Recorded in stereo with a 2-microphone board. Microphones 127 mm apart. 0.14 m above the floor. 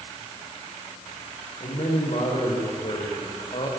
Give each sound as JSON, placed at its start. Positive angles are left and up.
{"t": 1.6, "sound": "a man speaking", "side_deg": 50, "distance_m": 7.0}